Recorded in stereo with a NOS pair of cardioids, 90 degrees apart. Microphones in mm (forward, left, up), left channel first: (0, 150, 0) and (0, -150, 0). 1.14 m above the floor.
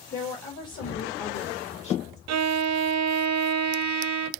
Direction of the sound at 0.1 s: 35° left.